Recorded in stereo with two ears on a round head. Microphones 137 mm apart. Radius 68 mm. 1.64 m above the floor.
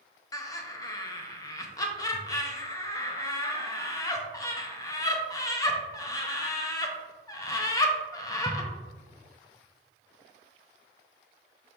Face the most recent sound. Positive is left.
turn(degrees=25)  # may be behind; listen again after turning